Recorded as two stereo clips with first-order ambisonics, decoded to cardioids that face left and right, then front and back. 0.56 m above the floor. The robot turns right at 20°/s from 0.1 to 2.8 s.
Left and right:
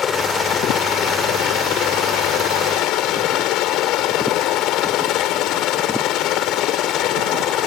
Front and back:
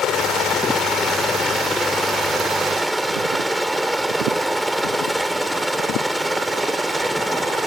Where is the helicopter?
35° left; by 7.7 s 90° left.